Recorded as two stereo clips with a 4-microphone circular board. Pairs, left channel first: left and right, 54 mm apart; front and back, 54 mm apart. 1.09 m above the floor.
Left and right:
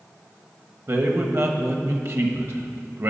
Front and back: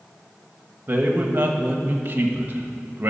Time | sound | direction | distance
0.9 | a man speaking | 130° right | 1.0 m